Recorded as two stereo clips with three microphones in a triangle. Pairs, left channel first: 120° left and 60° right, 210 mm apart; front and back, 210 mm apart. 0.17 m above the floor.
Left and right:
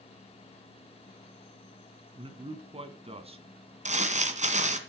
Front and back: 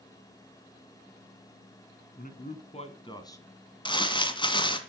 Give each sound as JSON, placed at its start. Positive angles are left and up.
{"t": 2.2, "sound": "a man speaking", "azimuth_deg": -10, "distance_m": 2.0}
{"t": 3.9, "sound": "crumpling", "azimuth_deg": -50, "distance_m": 1.8}